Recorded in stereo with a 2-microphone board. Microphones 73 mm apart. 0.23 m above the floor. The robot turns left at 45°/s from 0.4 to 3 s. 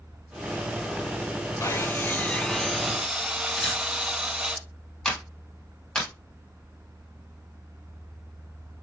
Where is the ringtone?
I don't hear a ringtone.